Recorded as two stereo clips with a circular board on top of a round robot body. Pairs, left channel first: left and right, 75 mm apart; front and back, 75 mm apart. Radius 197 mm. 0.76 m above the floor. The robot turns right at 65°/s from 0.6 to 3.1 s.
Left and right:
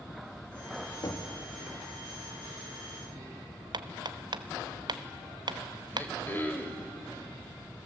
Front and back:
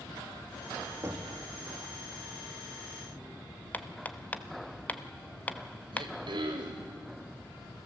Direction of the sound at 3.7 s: 70° right.